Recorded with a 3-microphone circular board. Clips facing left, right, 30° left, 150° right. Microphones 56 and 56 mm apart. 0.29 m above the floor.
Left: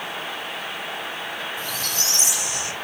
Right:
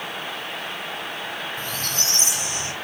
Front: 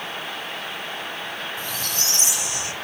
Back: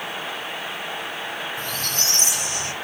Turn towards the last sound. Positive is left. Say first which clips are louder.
# even, back 1 dB
turn(degrees=-120)